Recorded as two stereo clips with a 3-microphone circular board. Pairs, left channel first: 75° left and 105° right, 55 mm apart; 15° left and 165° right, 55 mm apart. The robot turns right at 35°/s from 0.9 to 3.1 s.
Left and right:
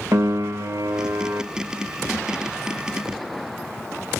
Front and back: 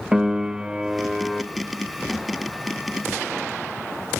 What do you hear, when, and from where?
0.1 s a piano: 90° right, 0.6 m; by 1.4 s 70° right, 0.6 m